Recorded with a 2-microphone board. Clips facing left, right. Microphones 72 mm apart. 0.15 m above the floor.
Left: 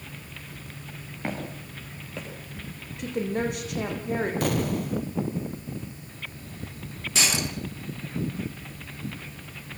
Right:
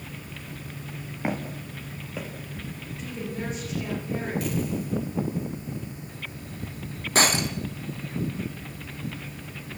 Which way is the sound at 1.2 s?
15° right (ahead or behind).